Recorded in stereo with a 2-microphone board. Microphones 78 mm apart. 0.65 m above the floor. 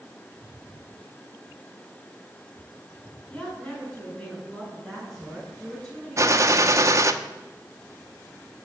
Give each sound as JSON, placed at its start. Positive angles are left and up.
{"t": 3.3, "sound": "a woman speaking", "side_deg": 15, "distance_m": 8.5}
{"t": 6.2, "sound": "a gunshot", "side_deg": -40, "distance_m": 1.0}